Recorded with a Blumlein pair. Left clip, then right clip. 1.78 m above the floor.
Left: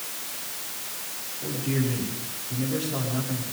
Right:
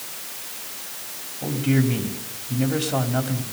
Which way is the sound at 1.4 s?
60° right.